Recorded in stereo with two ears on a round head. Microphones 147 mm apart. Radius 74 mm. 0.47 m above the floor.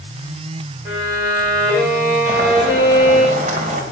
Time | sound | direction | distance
0.8 | a violin | 15° right (ahead or behind) | 9.5 m
2.3 | boiling | 50° right (ahead or behind) | 3 m